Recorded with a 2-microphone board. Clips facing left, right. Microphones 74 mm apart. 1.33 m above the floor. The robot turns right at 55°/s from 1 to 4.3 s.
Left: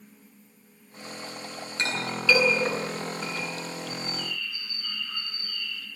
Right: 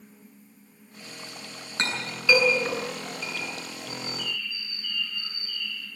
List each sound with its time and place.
1.8 s a clink: 40° right (ahead or behind), 8.5 m; by 3.5 s 50° left (ahead or behind), 8.5 m
3.9 s a bird: 45° left (ahead or behind), 5.5 m; by 5.9 s 65° left (ahead or behind), 5.5 m